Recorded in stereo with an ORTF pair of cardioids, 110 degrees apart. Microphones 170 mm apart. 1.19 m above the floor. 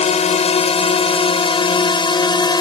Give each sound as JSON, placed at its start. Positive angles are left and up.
{"t": 0.0, "sound": "a drone", "azimuth_deg": 40}